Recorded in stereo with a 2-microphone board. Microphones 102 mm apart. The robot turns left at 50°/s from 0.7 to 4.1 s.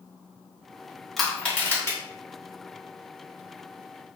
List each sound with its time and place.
1.2 s crushing: centre (ahead or behind), 1.0 m; by 2.0 s 30° left (ahead or behind), 1.0 m